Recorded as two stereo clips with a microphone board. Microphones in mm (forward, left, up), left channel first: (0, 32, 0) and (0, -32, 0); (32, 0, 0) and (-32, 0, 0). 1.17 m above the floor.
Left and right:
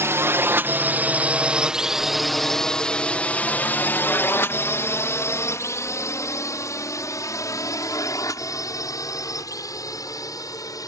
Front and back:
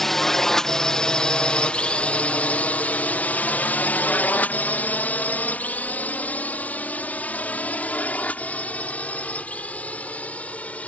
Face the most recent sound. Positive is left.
turn(degrees=70)